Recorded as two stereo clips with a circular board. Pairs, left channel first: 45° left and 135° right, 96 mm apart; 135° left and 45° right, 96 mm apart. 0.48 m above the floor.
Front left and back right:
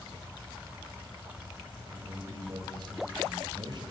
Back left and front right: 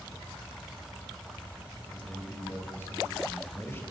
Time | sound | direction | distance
1.9 | a man speaking | 160° right | 2.5 m